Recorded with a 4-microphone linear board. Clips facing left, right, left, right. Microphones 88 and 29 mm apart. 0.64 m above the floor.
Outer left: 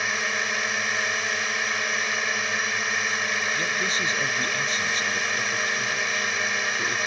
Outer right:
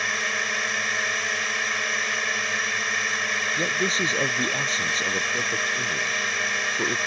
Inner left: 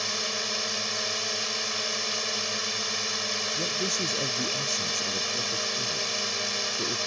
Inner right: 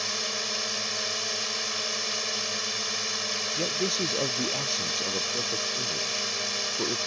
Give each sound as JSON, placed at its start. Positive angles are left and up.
{"t": 0.0, "sound": "a drone", "side_deg": 5}
{"t": 3.6, "sound": "a man speaking", "side_deg": -35}